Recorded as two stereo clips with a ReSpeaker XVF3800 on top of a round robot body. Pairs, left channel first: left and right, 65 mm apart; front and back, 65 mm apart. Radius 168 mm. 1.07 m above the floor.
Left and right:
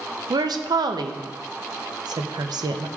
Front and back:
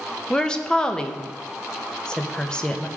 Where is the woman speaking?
75° right, 0.8 m.